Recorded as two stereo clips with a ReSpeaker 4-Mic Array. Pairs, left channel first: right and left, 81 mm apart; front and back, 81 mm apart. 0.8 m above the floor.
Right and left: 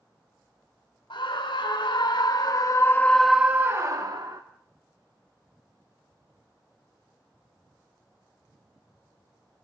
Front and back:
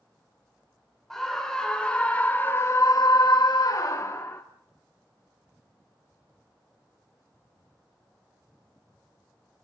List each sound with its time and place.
1.1 s a scream: 85° right, 2.5 m; by 4.4 s 55° left, 1.6 m